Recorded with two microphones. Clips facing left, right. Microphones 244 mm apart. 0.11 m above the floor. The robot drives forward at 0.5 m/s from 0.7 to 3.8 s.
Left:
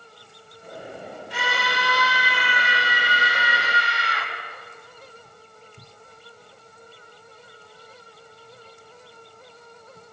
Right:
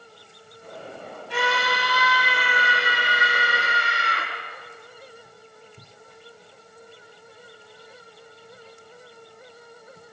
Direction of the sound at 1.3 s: 65° right (ahead or behind).